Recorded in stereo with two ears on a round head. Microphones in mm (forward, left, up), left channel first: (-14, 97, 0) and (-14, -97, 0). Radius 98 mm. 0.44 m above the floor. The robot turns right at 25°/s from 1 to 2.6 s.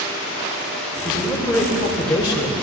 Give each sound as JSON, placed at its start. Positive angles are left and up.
{"t": 1.1, "sound": "a man speaking", "azimuth_deg": 0, "distance_m": 1.5}